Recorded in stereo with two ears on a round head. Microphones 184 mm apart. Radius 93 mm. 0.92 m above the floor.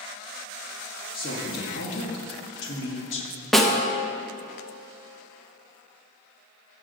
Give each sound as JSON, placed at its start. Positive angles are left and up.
{"t": 1.1, "sound": "a woman speaking", "side_deg": 45, "distance_m": 2.0}
{"t": 3.5, "sound": "a snare drum", "side_deg": 0, "distance_m": 1.1}